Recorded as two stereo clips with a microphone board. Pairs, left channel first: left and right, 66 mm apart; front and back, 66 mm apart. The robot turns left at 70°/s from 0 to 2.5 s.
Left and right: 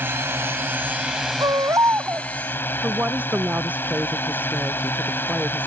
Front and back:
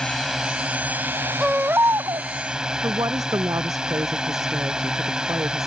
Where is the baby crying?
100° right; by 2.3 s 160° right.